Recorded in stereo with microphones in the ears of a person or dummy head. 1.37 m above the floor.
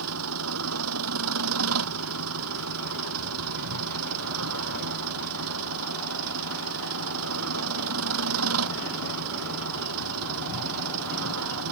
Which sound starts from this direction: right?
An engine running, at 0.0 s.